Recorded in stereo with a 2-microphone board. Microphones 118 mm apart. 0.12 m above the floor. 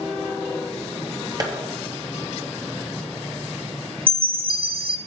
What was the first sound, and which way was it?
Tapping, 30° right (ahead or behind).